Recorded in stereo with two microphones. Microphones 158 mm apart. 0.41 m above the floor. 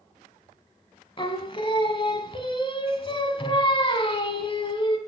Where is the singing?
35° left (ahead or behind), 0.9 m.